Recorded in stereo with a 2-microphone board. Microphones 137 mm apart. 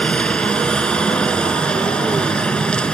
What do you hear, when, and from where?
0.0 s a helicopter: 5° left (ahead or behind)